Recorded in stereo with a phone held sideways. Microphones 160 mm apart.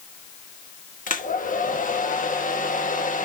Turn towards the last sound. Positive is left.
turn(degrees=60)  # may be behind; listen again after turning